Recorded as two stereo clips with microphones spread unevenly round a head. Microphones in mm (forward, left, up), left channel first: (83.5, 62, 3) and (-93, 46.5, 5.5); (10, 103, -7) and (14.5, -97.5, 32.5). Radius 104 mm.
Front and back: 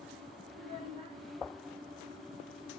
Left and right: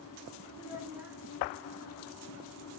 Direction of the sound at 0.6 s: 145° right.